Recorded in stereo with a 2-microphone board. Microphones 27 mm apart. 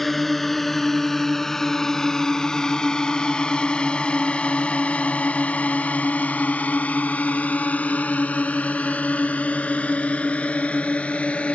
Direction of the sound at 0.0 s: 5° left (ahead or behind).